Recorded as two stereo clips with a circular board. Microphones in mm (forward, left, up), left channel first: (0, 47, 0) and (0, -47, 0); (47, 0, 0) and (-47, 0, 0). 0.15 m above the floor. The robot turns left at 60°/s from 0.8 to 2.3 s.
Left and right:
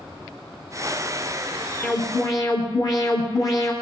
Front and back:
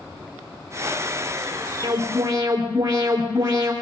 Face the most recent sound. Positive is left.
turn(degrees=130)